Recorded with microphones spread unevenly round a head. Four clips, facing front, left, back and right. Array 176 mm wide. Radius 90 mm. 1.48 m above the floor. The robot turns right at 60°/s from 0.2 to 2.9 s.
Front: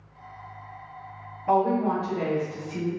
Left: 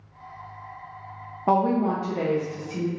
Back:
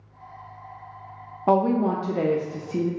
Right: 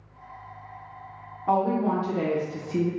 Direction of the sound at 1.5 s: 140° left.